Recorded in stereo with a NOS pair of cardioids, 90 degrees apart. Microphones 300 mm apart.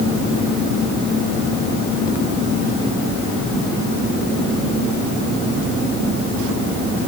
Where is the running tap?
No running tap in this recording.